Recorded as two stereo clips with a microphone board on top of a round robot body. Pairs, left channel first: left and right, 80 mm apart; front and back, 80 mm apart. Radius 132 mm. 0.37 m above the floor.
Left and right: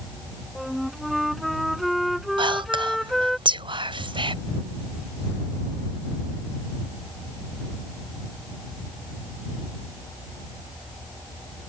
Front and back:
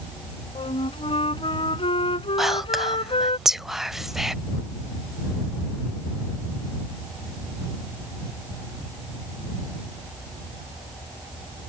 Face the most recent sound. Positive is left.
turn(degrees=-95)